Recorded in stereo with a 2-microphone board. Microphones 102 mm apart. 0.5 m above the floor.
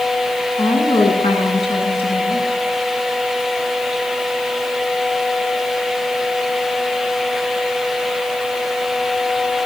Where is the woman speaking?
75° left (ahead or behind), 6 m; by 2.5 s 70° left (ahead or behind), 7 m.